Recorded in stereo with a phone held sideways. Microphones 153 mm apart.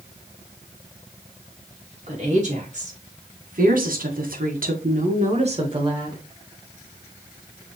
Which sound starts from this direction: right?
A woman speaking, at 2.1 s.